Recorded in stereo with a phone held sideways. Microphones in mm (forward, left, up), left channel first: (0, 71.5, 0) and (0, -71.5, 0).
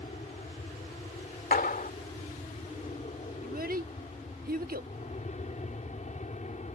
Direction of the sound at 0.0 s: 55° left (ahead or behind).